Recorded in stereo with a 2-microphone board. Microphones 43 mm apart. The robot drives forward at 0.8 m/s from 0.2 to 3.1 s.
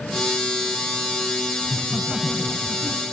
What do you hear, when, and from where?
1.6 s laughter: 20° right (ahead or behind), 1.7 m; by 3.0 s 15° right (ahead or behind), 2 m